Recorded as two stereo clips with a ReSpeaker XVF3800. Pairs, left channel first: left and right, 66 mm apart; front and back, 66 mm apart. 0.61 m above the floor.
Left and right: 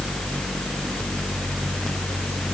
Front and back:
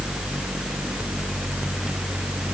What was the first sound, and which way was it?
Only background noise.